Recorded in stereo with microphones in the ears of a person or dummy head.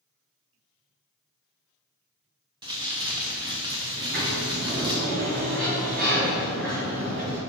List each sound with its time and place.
2.6 s crumpling: 20° right (ahead or behind), 0.9 m
3.9 s a sliding door: 50° right (ahead or behind), 2 m